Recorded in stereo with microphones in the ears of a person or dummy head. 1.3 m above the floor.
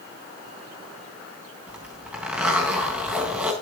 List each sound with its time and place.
1.7 s a zipper: 5° right (ahead or behind), 3.5 m